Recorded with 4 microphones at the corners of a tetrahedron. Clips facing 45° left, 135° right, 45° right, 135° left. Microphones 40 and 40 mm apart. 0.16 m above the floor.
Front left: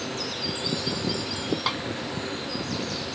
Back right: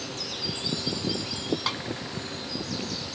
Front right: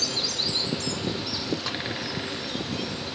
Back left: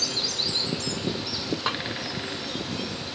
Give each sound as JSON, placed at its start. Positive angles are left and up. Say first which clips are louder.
{"t": 1.7, "sound": "a snare drum", "louder": "front left 3 dB, back left 3 dB", "azimuth_deg": 120}